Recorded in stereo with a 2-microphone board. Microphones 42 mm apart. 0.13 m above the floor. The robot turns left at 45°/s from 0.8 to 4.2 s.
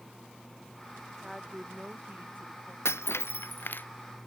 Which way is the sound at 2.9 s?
85° left.